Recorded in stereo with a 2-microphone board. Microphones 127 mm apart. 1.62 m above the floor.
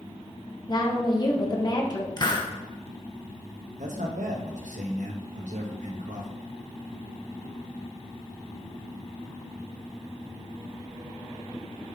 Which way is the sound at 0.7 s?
35° left (ahead or behind).